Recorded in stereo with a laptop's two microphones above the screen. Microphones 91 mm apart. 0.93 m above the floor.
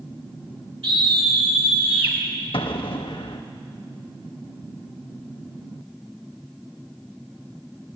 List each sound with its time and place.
0.8 s a scream: 75° right (ahead or behind), 4.5 m
2.5 s an explosion: 75° left (ahead or behind), 0.8 m